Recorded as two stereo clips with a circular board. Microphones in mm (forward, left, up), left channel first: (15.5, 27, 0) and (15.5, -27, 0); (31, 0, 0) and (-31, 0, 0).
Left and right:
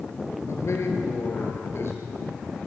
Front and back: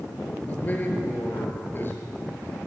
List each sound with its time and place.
0.5 s a man speaking: 65° left, 5 m; by 2.1 s 50° left, 5 m